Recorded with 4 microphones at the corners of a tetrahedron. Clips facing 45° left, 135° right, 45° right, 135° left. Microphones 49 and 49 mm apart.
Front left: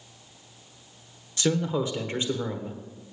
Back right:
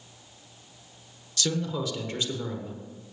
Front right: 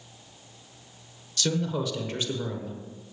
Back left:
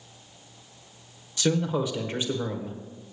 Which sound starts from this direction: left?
A man speaking, at 1.4 s.